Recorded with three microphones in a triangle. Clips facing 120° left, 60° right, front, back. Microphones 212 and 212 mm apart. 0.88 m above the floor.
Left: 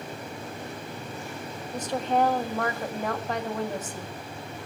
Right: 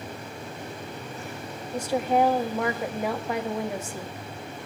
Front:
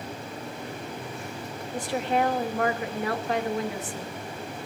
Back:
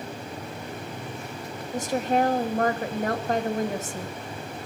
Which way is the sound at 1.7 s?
140° right.